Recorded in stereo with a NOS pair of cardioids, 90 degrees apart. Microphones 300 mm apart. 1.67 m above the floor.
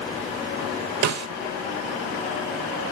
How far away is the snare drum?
About 2.5 m.